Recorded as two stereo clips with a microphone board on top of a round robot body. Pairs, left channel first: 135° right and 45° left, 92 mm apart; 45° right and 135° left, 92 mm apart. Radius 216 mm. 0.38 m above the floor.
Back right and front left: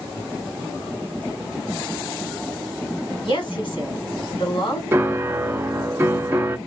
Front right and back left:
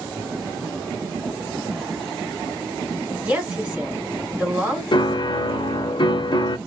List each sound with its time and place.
3.2 s a woman speaking: 150° right, 3.5 m
4.9 s a piano: 20° right, 0.9 m